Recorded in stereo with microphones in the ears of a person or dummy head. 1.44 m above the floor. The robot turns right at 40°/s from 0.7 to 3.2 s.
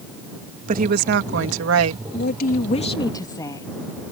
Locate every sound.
0.7 s a woman speaking: 130° right; by 2.0 s 80° right
2.1 s a woman speaking: 120° left; by 3.7 s 165° left